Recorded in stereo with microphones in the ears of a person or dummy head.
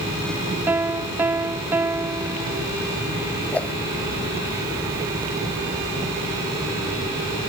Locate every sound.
0.7 s a piano: 15° right (ahead or behind)
3.5 s a whoosh: 10° left (ahead or behind)